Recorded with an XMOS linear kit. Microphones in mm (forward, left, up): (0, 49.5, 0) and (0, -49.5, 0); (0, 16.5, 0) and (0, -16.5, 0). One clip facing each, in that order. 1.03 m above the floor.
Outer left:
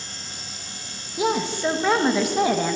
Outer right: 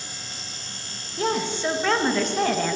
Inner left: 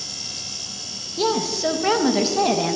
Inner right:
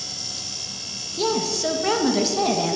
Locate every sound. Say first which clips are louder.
1.2 s a woman speaking: outer left 2 dB, inner left 2 dB; 10° left (ahead or behind), 1.0 m